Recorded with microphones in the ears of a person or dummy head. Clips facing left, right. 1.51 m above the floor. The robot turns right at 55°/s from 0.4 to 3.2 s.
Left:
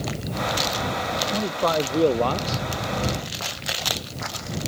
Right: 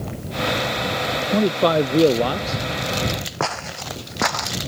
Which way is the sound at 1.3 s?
65° right.